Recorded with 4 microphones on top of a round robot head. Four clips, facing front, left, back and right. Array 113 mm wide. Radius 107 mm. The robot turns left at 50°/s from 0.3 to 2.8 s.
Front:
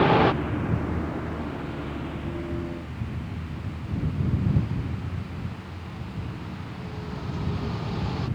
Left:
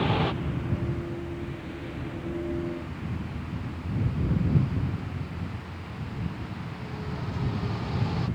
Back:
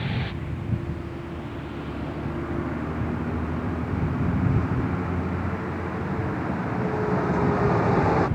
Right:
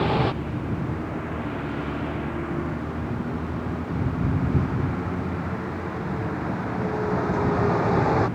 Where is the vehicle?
15° right; by 8.3 s 135° right.